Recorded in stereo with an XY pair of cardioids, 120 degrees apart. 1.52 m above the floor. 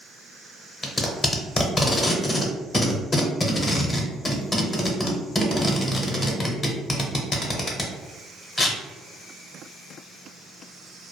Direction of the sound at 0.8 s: 25° left.